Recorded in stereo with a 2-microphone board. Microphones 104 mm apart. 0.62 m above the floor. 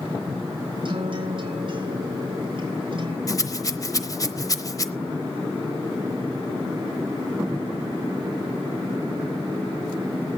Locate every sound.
0.8 s a guitar: 50° right (ahead or behind), 3.5 m
3.3 s a rattle: 35° left (ahead or behind), 0.9 m